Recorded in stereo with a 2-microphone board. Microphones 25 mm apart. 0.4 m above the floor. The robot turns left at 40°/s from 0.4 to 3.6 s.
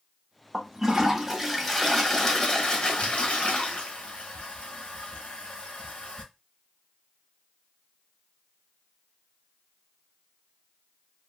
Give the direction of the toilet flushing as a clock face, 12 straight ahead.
5 o'clock.